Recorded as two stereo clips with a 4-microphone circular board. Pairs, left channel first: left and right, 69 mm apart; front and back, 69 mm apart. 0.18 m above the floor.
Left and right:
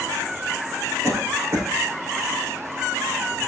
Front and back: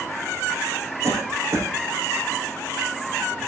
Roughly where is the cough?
Behind right.